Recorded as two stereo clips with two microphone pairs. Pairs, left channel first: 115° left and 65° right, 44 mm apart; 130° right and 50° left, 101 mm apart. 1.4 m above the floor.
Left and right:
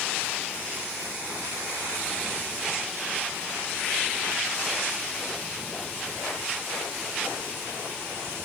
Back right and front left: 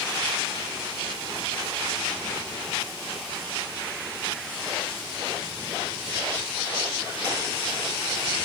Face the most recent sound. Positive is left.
No sound to turn to.